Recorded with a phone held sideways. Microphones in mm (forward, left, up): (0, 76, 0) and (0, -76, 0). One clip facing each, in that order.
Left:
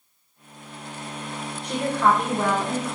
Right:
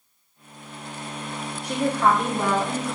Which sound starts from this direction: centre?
A woman speaking, at 1.6 s.